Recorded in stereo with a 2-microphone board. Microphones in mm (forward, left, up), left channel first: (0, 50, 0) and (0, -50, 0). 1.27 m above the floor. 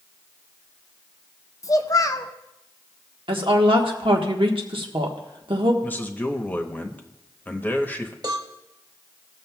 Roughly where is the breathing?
I don't hear breathing.